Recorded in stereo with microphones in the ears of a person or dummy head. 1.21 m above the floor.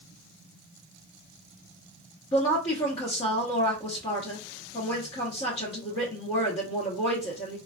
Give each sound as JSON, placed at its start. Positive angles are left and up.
{"t": 2.3, "sound": "a woman speaking", "side_deg": 30, "distance_m": 0.9}